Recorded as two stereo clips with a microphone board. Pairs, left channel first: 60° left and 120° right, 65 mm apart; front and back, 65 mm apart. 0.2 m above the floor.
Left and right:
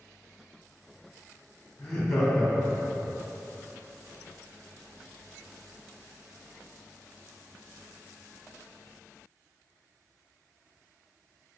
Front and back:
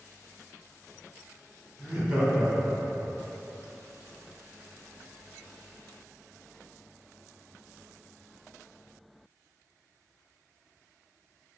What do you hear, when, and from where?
1.8 s laughter: 130° left, 1.0 m; by 3.1 s 145° left, 1.6 m